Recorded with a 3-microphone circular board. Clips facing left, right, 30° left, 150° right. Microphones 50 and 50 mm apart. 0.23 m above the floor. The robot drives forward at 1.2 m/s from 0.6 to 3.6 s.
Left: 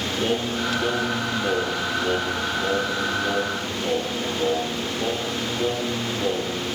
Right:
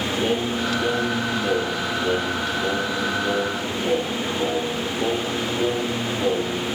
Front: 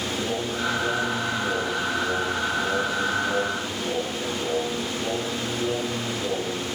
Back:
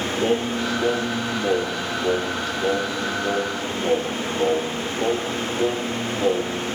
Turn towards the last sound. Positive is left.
turn(degrees=175)